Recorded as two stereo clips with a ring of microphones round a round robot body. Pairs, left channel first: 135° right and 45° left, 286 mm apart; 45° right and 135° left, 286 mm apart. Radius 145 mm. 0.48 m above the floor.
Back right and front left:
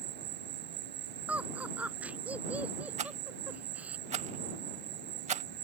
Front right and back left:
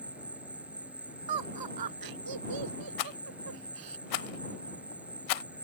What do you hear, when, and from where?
0.0 s an insect: 50° left
1.3 s laughter: 130° left
3.0 s a rattle: 25° right